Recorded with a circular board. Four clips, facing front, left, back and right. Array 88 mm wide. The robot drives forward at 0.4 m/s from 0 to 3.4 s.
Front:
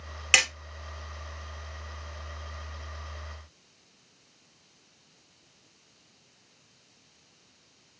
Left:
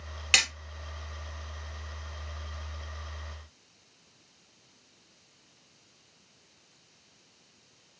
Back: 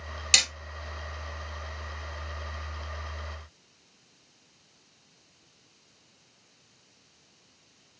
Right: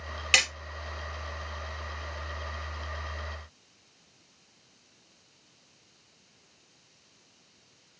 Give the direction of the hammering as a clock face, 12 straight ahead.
12 o'clock.